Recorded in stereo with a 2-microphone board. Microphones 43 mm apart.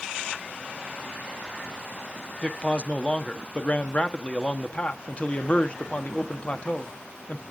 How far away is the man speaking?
About 1.1 m.